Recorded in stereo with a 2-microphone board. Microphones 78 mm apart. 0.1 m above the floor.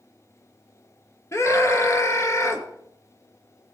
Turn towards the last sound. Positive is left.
turn(degrees=40)  # may be behind; listen again after turning